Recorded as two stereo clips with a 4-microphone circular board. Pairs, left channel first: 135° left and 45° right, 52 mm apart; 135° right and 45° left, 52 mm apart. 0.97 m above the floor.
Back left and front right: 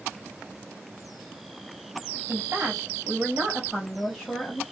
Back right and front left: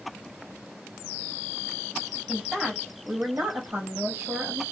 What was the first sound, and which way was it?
A woman speaking, 40° right.